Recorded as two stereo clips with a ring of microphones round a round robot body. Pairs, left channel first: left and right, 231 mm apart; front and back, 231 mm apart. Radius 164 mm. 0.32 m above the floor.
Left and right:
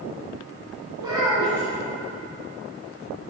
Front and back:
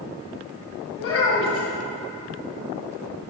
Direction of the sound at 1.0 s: 15° right.